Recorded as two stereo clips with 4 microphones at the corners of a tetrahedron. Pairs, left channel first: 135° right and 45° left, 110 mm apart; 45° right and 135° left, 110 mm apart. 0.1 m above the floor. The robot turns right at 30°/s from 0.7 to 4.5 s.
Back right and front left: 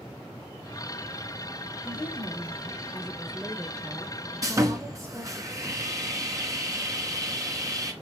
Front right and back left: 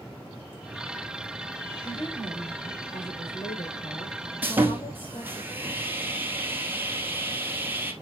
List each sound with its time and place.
1.9 s a woman speaking: 95° right, 4 m; by 5.4 s 15° right, 4 m
4.4 s sawing: 75° left, 2.0 m; by 7.9 s 80° left, 2.0 m